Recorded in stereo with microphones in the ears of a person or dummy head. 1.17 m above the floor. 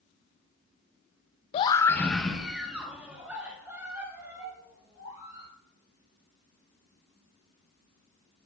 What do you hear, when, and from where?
1.5 s a scream: 35° left (ahead or behind), 0.5 m; by 5.5 s 15° right (ahead or behind), 4.5 m